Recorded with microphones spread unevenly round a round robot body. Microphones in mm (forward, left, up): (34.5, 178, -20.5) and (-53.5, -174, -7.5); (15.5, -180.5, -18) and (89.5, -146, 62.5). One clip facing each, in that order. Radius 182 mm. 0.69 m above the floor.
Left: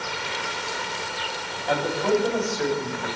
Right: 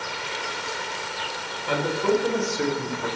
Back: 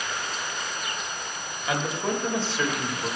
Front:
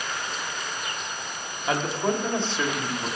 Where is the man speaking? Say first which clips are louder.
Even, front 2 dB; 30° right, 4 m; by 3.1 s 65° right, 3.5 m.